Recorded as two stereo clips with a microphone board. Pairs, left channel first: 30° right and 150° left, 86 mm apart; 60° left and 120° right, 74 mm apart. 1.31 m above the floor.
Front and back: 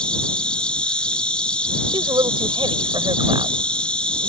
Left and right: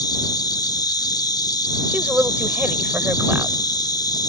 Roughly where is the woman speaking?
Behind.